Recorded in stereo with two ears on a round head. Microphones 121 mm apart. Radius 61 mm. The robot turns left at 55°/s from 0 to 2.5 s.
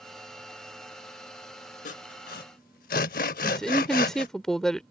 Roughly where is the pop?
No pop in this recording.